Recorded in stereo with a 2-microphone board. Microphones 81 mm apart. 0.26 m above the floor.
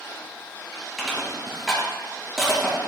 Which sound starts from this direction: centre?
Crushing, at 1.0 s.